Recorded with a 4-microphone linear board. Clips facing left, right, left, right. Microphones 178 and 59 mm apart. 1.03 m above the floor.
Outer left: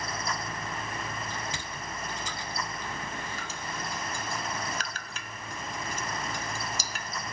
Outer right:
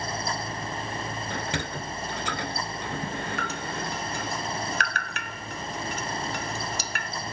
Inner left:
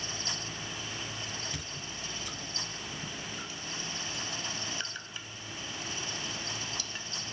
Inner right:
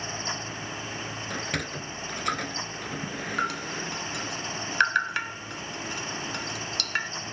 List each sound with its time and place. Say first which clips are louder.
1.3 s a sliding door: outer right 6 dB, inner right 9 dB; 65° right (ahead or behind)
3.4 s dripping: outer right 6 dB, inner right 11 dB; 65° right (ahead or behind)